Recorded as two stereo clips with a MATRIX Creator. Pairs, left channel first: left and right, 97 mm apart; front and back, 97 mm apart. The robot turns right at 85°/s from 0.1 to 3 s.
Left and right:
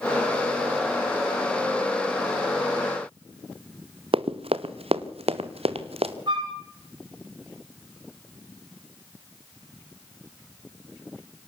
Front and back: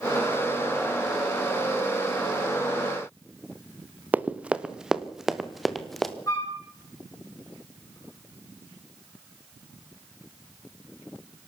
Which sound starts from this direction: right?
Running footsteps, at 4.1 s.